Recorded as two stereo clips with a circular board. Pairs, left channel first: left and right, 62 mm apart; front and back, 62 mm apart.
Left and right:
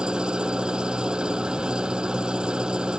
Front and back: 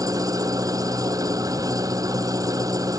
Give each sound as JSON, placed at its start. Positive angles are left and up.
{"t": 0.0, "sound": "an engine running", "azimuth_deg": -165}